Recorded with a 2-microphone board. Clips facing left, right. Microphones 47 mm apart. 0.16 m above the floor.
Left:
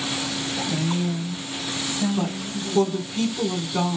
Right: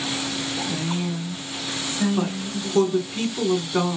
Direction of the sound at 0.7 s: 10° right (ahead or behind).